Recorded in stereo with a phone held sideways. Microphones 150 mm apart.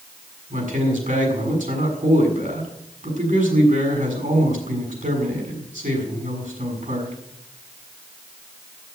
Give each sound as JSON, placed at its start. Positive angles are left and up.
{"t": 0.5, "sound": "a man speaking", "side_deg": -60, "distance_m": 6.5}